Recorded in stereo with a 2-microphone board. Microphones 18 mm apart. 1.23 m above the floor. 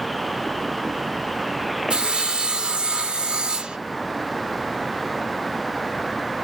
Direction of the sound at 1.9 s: 65° right (ahead or behind).